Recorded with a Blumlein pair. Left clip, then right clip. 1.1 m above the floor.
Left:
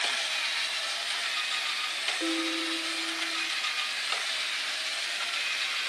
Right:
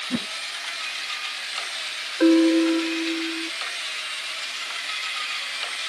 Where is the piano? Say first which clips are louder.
Right 12 dB; 55° right.